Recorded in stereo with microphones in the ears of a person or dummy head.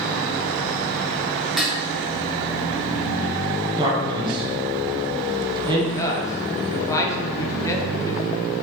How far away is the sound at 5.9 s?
About 0.6 m.